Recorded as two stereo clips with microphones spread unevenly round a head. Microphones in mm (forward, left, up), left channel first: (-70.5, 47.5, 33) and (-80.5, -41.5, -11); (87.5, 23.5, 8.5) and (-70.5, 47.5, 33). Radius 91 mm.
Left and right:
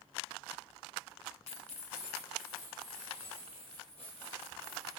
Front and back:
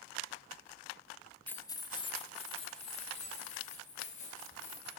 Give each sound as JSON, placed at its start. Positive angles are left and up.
{"t": 1.5, "sound": "keys jangling", "azimuth_deg": 70, "distance_m": 0.5}